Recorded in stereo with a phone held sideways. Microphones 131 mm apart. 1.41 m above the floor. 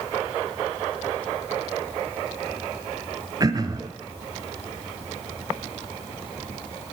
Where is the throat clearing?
30° right (ahead or behind), 1.3 m.